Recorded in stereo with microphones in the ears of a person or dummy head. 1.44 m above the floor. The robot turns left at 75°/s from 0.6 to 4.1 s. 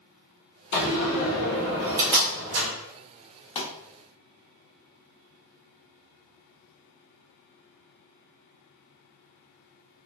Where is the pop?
25° left (ahead or behind), 1.0 m; by 3.7 s 20° left (ahead or behind), 1.0 m.